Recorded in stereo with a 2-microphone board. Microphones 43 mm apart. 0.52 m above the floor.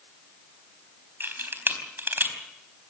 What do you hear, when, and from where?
1.2 s a camera shutter: 50° right (ahead or behind), 3.5 m